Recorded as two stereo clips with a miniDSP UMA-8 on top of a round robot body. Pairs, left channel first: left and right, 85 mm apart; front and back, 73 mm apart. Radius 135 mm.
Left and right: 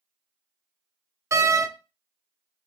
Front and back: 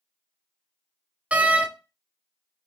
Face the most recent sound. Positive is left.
turn(degrees=-120)